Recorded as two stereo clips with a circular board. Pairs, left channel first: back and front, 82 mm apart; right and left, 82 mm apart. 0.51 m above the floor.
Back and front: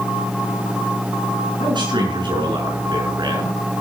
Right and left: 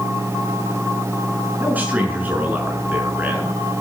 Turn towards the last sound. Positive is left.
turn(degrees=20)